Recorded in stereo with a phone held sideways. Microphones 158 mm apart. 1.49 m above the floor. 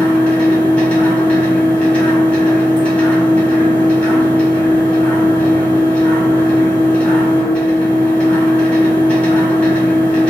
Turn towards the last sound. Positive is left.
turn(degrees=10)  # may be behind; listen again after turning